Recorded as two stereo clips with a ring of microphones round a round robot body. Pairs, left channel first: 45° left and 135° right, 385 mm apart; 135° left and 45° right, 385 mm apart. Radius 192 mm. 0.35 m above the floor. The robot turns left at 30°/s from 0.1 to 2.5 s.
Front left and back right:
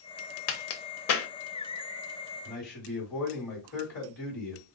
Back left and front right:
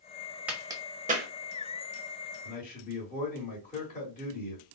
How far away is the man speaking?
About 1.7 m.